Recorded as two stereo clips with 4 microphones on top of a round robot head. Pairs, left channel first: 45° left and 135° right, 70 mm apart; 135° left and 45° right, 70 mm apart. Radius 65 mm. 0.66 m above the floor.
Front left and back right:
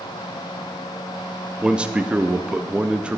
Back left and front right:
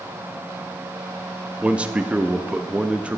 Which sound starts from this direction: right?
A man speaking, at 1.6 s.